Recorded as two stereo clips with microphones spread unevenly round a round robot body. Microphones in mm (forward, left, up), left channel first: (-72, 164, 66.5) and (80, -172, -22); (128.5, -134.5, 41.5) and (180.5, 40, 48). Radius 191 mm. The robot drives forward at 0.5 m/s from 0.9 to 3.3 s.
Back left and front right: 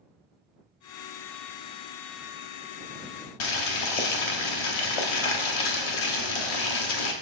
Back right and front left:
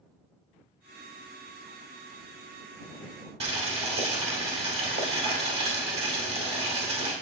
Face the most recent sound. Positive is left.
turn(degrees=115)